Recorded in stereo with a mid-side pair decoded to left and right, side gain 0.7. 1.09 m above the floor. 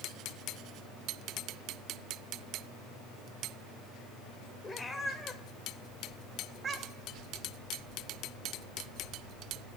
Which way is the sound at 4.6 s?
20° left.